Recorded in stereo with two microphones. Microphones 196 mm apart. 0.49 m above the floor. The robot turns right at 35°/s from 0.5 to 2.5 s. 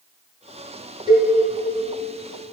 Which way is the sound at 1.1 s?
25° right (ahead or behind).